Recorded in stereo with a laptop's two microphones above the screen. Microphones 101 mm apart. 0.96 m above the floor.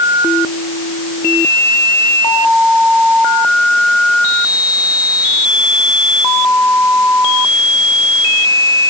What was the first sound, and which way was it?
Only background noise.